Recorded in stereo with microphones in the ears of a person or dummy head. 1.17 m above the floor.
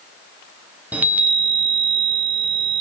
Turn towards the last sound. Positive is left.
turn(degrees=-5)  # may be behind; listen again after turning